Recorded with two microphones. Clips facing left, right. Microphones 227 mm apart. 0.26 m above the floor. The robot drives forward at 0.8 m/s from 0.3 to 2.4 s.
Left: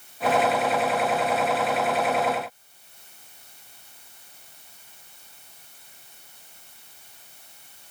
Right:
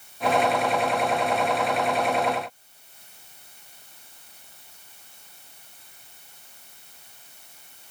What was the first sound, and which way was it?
Only background noise.